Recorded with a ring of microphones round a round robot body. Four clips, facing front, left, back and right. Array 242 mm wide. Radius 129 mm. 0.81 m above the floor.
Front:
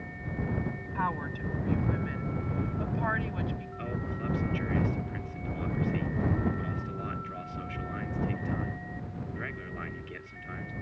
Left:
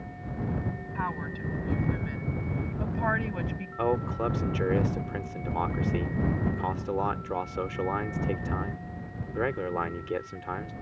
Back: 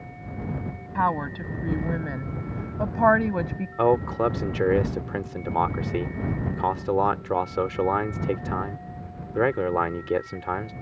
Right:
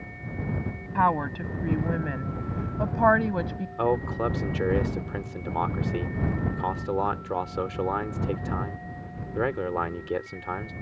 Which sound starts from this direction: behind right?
A woman speaking, at 0.9 s.